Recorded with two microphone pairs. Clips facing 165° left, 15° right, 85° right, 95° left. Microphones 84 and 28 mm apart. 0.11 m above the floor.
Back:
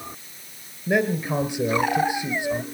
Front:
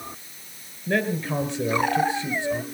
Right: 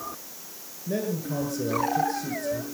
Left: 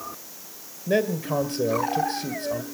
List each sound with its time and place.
0.9 s a man speaking: 90° left, 1.8 m